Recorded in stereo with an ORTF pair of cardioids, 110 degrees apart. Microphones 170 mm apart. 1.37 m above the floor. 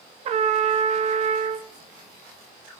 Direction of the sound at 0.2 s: 40° right.